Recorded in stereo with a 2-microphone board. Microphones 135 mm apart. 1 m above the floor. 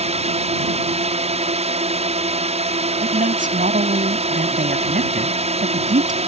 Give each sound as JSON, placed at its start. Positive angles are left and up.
{"t": 0.0, "sound": "a drone", "side_deg": -50}
{"t": 3.0, "sound": "a man speaking", "side_deg": -75}